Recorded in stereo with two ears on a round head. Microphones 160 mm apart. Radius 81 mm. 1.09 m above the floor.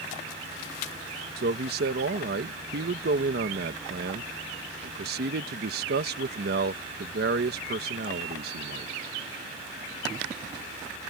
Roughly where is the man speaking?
Right.